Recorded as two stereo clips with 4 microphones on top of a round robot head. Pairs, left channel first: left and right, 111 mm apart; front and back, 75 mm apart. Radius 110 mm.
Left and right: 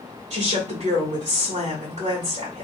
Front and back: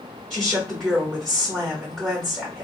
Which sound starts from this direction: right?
A woman speaking, at 0.3 s.